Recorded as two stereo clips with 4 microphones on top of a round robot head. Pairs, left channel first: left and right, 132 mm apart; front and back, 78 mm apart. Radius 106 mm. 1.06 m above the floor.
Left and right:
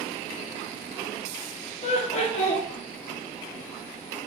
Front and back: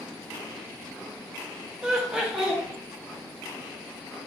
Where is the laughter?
95° left, 0.8 m.